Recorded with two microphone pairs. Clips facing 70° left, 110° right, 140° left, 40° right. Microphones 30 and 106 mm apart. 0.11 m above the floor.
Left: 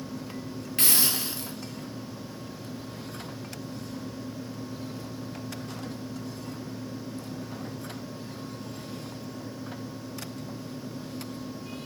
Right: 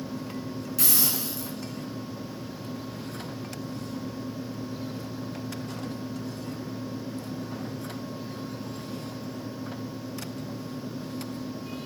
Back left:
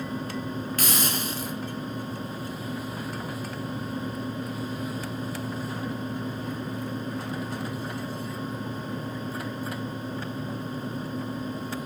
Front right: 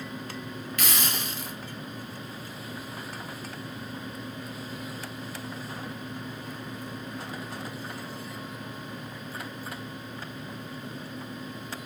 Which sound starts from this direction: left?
A hiss, at 0.8 s.